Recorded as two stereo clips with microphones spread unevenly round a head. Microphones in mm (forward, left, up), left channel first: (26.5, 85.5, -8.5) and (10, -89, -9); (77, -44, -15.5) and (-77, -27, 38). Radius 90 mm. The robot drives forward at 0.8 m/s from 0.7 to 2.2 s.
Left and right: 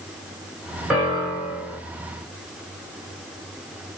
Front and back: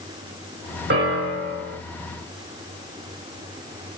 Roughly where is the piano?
Behind.